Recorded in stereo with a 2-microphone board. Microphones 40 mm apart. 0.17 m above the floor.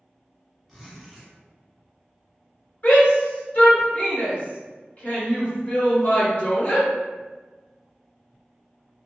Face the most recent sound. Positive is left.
turn(degrees=45)  # may be behind; listen again after turning